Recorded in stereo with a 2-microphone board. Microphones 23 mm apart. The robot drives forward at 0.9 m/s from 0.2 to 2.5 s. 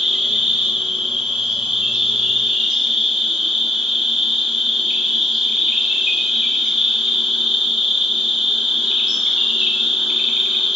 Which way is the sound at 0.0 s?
40° right (ahead or behind).